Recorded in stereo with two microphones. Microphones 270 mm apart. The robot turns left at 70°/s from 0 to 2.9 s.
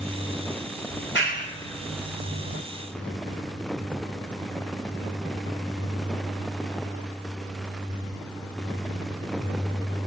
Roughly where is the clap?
Left.